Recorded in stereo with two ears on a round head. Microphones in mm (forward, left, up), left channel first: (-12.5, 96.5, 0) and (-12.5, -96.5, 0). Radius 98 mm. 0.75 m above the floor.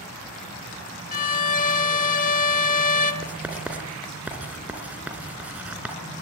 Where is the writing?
5° right (ahead or behind), 2.5 m.